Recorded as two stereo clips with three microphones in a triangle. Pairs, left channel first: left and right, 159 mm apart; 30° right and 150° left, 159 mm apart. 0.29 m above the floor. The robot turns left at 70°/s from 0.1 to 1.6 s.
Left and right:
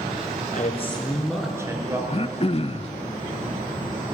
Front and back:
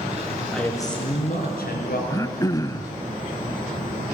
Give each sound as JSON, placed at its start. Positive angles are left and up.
{"t": 0.5, "sound": "a man speaking", "azimuth_deg": 55, "distance_m": 4.5}
{"t": 2.1, "sound": "throat clearing", "azimuth_deg": 35, "distance_m": 0.5}